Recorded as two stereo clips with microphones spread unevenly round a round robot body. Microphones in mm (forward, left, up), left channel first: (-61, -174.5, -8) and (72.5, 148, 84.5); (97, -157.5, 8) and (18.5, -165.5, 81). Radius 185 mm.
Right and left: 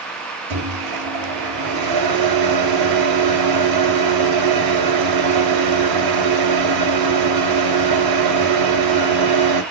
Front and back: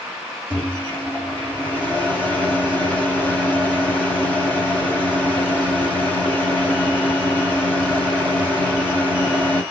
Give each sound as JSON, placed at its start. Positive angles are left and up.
{"t": 0.5, "sound": "a microwave", "azimuth_deg": 65, "distance_m": 1.2}